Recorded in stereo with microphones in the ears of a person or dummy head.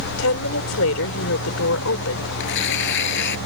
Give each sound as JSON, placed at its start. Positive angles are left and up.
{"t": 0.2, "sound": "a woman speaking", "side_deg": 85}
{"t": 2.4, "sound": "tearing paper", "side_deg": 65}